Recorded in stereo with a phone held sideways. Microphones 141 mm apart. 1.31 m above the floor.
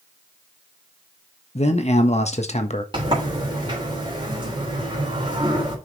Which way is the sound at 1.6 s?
50° left (ahead or behind).